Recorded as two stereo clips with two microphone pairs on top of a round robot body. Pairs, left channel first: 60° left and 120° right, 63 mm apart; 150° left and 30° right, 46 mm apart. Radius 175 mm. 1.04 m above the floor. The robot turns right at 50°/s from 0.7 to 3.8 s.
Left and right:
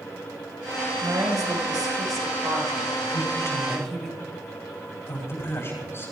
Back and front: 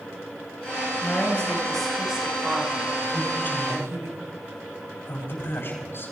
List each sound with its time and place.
1.0 s a woman speaking: 165° right, 5.5 m; by 4.1 s 25° right, 5.5 m
3.1 s a man speaking: 75° left, 7.5 m; by 6.1 s 110° left, 7.5 m